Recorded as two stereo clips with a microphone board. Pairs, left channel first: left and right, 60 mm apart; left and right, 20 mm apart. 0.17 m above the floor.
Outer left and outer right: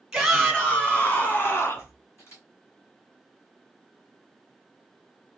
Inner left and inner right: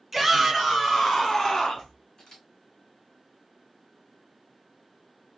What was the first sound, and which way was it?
A shout, centre (ahead or behind).